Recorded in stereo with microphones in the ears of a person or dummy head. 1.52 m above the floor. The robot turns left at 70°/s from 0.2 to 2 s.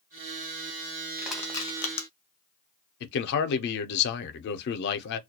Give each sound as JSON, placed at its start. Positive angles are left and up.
{"t": 1.2, "sound": "crushing", "side_deg": -15, "distance_m": 0.6}
{"t": 3.0, "sound": "a man speaking", "side_deg": 60, "distance_m": 0.6}